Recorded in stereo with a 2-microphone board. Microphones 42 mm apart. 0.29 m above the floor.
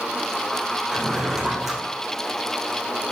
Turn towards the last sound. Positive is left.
turn(degrees=-5)  # may be behind; listen again after turning